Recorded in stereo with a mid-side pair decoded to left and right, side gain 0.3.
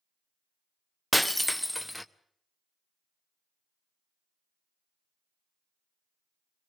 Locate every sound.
1.1 s breaking glass: straight ahead, 0.9 m